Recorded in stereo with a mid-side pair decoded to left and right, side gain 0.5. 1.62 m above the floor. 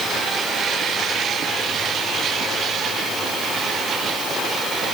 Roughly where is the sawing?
I don't hear sawing.